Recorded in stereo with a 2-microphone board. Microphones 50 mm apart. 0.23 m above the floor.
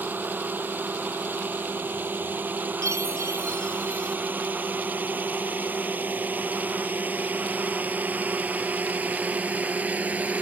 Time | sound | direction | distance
0.0 | a drone | 40° right (ahead or behind) | ?
2.8 | a chime | 75° right (ahead or behind) | ?